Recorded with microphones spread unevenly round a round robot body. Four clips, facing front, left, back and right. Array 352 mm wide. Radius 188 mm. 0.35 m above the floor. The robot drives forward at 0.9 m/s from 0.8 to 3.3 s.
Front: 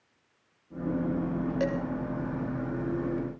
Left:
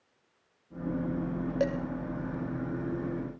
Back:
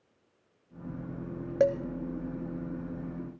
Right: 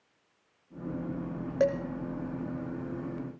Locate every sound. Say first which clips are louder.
1.6 s dishes clattering: right 4 dB, back 6 dB; straight behind, 1.3 m